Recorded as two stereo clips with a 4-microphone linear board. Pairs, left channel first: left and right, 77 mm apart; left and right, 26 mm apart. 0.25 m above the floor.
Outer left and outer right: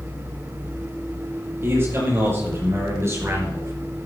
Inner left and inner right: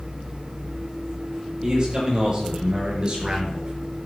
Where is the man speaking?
35° right (ahead or behind), 7.5 m.